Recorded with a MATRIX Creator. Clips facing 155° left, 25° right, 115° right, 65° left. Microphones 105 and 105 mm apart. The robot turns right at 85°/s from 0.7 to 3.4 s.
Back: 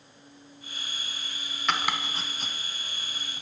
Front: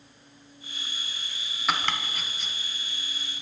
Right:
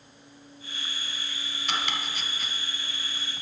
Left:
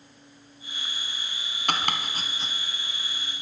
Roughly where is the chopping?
Ahead left.